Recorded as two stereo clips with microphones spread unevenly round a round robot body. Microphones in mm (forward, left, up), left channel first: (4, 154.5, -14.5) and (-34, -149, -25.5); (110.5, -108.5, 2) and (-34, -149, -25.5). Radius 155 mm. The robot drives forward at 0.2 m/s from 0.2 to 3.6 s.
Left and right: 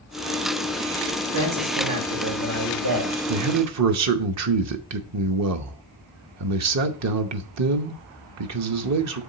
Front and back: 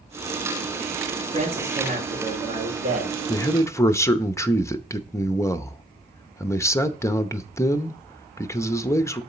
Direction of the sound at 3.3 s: 55° right.